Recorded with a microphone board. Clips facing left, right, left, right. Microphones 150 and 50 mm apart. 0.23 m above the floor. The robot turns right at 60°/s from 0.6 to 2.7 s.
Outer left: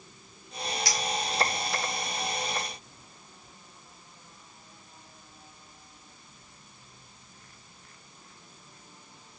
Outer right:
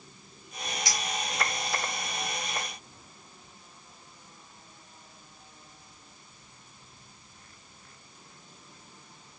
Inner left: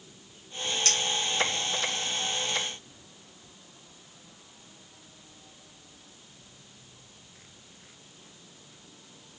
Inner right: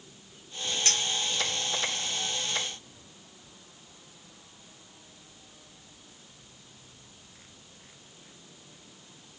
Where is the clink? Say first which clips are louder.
Outer left 1 dB, even; 20° right (ahead or behind), 1.1 m; by 1.0 s 15° right (ahead or behind), 1.1 m.